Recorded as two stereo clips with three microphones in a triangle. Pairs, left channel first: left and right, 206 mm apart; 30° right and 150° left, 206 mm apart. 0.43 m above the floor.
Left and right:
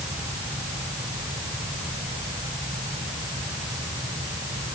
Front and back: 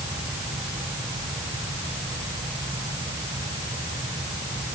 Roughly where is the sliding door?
I don't hear a sliding door.